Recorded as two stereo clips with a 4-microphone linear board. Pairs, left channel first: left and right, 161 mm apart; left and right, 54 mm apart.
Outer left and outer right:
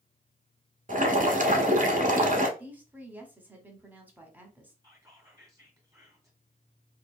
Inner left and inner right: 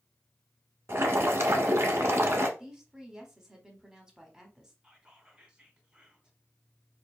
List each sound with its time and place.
0.9 s boiling: 55° right (ahead or behind), 0.9 m
2.6 s a woman speaking: 10° right (ahead or behind), 1.1 m
4.8 s whispering: 20° right (ahead or behind), 1.4 m